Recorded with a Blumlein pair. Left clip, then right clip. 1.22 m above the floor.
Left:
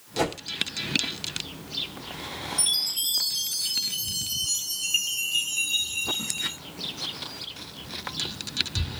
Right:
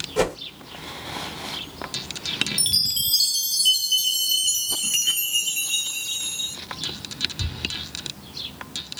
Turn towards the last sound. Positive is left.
turn(degrees=-55)